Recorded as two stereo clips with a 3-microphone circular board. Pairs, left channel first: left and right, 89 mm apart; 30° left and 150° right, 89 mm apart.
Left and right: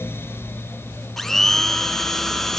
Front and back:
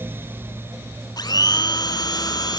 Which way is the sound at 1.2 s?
5° left.